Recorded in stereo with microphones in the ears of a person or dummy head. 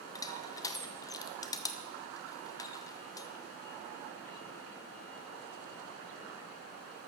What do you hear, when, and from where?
0.1 s crushing: 25° left (ahead or behind), 0.7 m